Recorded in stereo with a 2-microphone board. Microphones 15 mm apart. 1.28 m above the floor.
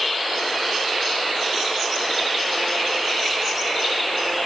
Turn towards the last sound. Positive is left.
No sound to turn to.